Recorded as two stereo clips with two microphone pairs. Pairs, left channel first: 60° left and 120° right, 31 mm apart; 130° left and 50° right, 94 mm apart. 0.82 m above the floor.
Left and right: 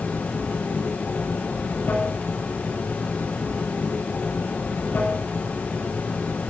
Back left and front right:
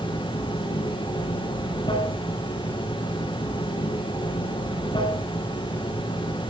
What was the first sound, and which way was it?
Running water, 100° left.